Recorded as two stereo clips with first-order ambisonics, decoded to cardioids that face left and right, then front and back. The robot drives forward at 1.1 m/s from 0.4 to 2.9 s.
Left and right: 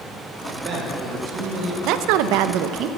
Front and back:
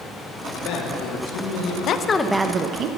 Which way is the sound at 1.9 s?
50° right.